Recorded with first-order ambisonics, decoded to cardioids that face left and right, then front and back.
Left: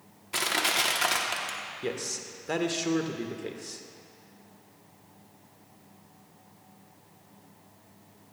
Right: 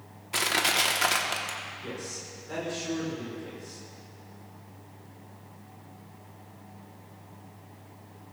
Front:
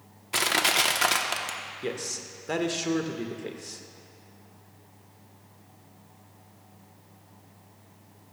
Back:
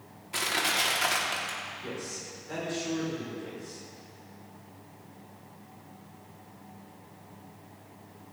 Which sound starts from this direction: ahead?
Crushing, at 0.3 s.